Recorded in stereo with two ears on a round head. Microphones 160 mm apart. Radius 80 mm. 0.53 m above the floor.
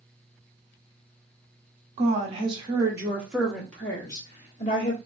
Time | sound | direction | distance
2.0 | a woman speaking | 40° right (ahead or behind) | 1.4 m